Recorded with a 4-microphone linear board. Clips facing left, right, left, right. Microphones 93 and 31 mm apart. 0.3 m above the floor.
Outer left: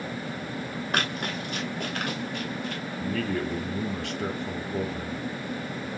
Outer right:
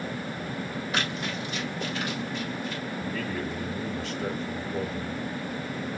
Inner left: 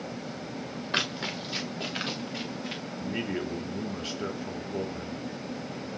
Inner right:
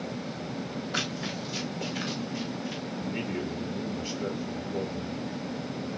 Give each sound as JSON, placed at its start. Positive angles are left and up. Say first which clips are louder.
{"t": 0.9, "sound": "running footsteps", "louder": "outer left 2 dB, inner left 3 dB", "side_deg": 60, "distance_m": 5.5}
{"t": 3.0, "sound": "a man speaking", "louder": "outer left 5 dB, inner left 2 dB", "side_deg": 65, "distance_m": 4.0}